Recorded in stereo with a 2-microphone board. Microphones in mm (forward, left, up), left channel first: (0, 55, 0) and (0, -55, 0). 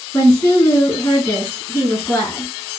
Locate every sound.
0.1 s a woman speaking: 30° left (ahead or behind), 2.5 m